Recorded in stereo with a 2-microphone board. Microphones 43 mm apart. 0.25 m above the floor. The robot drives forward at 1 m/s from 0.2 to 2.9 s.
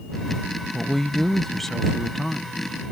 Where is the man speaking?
5° left (ahead or behind).